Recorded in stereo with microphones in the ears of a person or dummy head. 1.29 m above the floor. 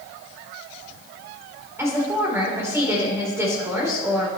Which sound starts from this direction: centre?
A woman speaking, at 1.8 s.